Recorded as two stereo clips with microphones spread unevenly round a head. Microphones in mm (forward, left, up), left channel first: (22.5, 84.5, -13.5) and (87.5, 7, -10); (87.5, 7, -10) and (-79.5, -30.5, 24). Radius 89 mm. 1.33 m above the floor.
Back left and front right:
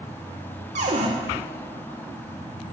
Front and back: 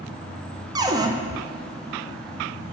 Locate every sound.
0.8 s a cupboard door: 95° right, 0.6 m